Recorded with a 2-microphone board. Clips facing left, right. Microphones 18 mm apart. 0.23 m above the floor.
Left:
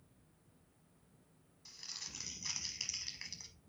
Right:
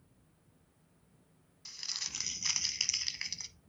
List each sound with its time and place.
1.6 s crumpling: 45° right (ahead or behind), 0.7 m